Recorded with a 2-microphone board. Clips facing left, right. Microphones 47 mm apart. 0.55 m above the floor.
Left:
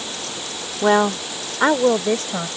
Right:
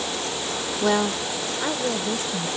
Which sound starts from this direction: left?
A woman speaking, at 0.8 s.